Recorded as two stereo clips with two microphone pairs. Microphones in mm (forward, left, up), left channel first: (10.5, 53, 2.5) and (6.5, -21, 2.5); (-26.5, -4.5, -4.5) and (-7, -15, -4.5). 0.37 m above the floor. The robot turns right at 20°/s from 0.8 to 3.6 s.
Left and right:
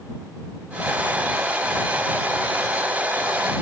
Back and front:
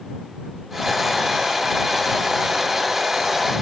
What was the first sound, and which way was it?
Only background noise.